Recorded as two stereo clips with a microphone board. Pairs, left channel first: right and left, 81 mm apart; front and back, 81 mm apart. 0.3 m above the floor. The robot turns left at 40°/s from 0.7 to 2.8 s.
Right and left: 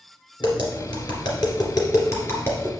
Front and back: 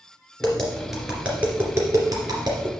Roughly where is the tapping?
Right.